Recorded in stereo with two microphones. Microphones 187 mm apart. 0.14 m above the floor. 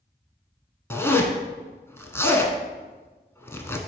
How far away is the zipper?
About 0.7 m.